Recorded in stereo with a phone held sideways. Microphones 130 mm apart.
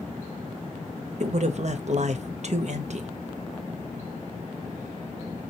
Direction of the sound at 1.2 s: 60° right (ahead or behind).